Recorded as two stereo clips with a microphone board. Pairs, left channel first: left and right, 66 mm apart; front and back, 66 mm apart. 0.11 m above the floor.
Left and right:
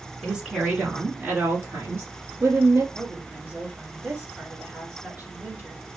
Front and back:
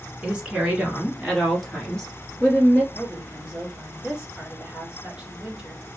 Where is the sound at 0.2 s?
150° right, 1.3 m; by 2.8 s 70° right, 2.5 m.